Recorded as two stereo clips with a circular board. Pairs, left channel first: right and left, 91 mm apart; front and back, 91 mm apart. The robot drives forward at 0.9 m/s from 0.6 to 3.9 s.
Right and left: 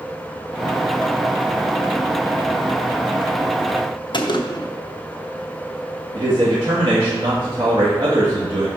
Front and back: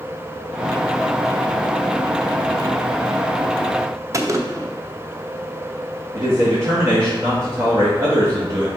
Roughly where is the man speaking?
Behind left.